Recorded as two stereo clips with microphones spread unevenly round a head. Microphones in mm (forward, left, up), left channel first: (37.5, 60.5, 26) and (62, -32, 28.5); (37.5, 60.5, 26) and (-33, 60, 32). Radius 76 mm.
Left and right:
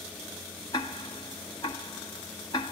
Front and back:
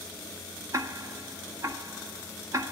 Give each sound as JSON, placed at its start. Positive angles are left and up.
{"t": 0.7, "sound": "ticking", "azimuth_deg": 165, "distance_m": 1.0}